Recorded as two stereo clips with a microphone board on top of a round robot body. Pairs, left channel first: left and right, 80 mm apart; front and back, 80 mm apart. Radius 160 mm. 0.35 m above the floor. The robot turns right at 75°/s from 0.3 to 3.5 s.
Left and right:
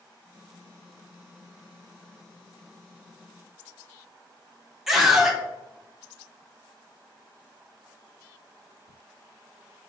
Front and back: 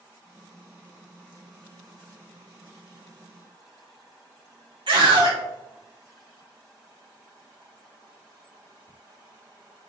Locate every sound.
4.9 s a scream: 175° right, 1.8 m